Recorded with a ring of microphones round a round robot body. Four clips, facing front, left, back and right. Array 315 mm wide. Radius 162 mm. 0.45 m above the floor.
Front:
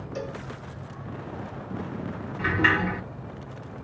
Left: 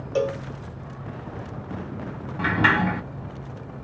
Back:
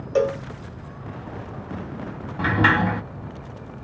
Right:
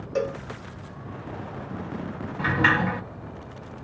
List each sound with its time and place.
0.1 s a cowbell: 165° left, 0.5 m
2.4 s a sliding door: 150° left, 3 m